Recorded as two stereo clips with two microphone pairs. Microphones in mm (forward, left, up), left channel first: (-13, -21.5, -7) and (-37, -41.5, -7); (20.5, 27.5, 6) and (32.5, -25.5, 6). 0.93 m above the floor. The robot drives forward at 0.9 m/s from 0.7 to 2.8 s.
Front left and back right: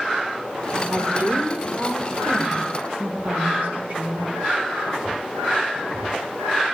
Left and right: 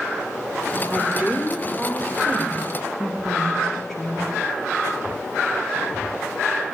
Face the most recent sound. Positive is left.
turn(degrees=-175)